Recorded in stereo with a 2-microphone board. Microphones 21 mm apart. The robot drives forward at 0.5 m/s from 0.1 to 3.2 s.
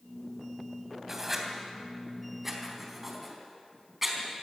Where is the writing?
20° right (ahead or behind), 2.5 m; by 4.2 s 15° right (ahead or behind), 3.5 m.